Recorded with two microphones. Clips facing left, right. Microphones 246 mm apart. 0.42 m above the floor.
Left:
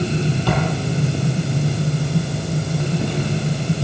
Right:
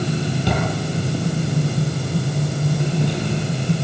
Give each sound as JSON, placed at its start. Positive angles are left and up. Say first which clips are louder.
{"t": 0.5, "sound": "a drawer", "louder": "left 1 dB", "side_deg": -20, "distance_m": 7.0}